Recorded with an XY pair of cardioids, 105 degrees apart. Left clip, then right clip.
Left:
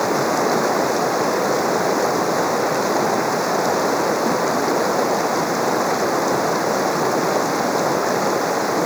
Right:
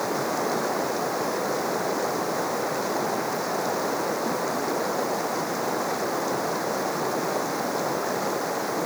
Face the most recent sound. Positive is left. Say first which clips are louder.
# left 8 dB
turn(degrees=45)